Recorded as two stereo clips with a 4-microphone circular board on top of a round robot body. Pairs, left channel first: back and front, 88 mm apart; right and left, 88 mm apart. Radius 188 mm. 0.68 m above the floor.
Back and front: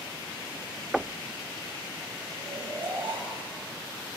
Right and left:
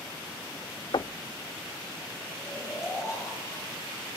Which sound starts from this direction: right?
Knocking, at 0.9 s.